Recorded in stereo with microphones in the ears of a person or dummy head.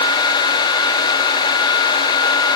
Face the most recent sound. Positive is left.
No sound to turn to.